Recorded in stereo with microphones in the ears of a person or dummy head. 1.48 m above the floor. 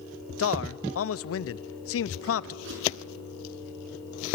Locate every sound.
0.4 s a man speaking: 70° left (ahead or behind), 0.7 m
2.6 s a whoosh: 75° right (ahead or behind), 6.5 m